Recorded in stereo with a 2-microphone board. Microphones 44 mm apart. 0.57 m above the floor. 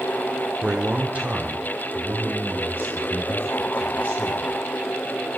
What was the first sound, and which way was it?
A man speaking, 20° right (ahead or behind).